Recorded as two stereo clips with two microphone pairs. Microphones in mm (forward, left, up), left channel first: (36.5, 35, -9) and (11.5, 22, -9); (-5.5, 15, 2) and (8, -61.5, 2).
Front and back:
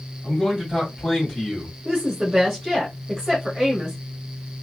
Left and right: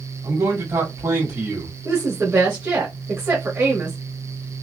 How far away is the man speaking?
About 1.6 m.